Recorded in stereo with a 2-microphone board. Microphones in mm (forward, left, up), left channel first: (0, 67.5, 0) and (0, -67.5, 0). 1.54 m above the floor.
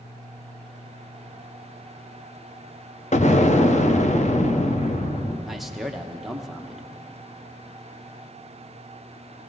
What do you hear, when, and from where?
3.1 s an explosion: 60° left (ahead or behind), 0.8 m
5.5 s a man speaking: centre (ahead or behind), 1.0 m